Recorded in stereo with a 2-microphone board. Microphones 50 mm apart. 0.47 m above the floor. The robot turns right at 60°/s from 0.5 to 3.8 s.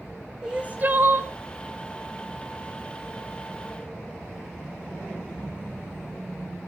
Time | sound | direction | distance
0.4 | crying | 160° right | 1.0 m